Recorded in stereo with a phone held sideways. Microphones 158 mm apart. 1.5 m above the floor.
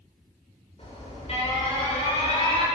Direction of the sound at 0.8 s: 40° left (ahead or behind).